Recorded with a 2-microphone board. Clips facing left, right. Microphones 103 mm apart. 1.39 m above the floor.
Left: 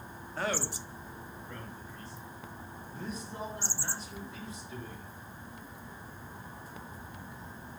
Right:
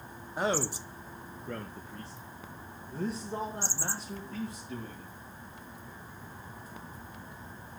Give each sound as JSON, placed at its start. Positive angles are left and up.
{"t": 0.4, "sound": "a man speaking", "side_deg": -15, "distance_m": 0.7}